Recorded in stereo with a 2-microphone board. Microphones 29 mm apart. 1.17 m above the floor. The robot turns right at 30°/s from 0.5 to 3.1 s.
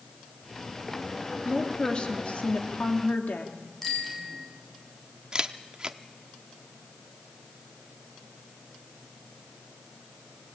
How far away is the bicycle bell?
About 6.5 m.